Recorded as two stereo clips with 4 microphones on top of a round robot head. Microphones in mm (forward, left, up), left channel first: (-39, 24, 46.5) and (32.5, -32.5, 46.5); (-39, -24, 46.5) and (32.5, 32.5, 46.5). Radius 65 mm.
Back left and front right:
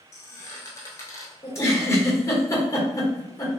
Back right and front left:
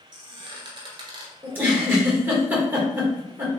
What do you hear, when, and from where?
0.1 s a squeak: 80° left, 0.8 m
1.4 s a giggle: 100° left, 1.1 m